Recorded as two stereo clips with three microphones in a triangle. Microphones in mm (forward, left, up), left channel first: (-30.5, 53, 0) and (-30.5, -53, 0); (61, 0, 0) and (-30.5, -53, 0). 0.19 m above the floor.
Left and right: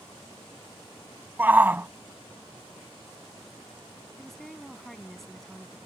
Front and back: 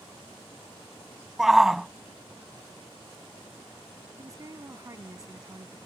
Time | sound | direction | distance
1.4 | a shout | 70° right | ?
4.2 | a woman speaking | 175° left | ?